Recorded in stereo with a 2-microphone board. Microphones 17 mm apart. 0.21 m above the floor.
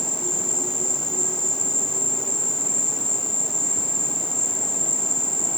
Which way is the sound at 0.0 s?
30° left (ahead or behind).